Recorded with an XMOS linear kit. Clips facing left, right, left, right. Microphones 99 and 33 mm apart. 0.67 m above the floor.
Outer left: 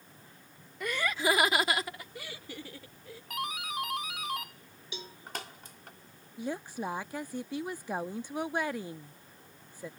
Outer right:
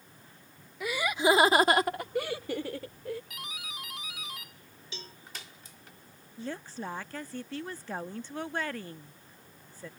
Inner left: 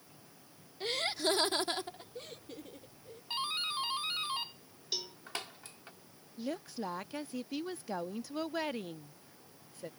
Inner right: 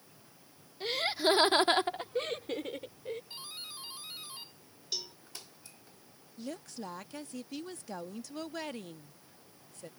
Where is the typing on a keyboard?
No typing on a keyboard in this recording.